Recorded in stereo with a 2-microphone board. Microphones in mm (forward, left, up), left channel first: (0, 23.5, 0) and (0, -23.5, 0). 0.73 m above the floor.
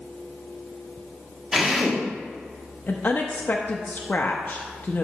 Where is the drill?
10° right (ahead or behind), 1.4 m.